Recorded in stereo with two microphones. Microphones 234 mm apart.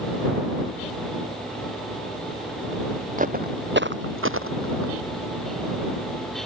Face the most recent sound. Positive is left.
turn(degrees=-70)  # may be behind; listen again after turning